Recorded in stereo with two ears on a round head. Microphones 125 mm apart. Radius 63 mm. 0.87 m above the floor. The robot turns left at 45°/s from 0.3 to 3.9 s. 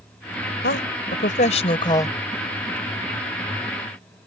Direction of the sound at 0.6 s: 90° left.